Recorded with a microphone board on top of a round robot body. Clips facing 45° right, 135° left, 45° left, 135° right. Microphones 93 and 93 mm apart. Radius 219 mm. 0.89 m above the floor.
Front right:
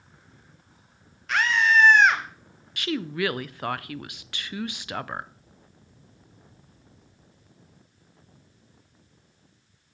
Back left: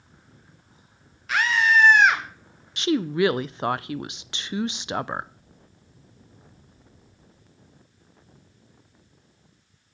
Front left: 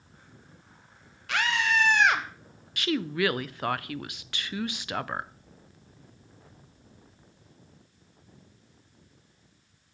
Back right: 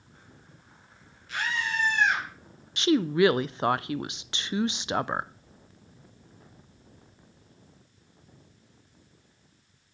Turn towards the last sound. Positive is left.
turn(degrees=180)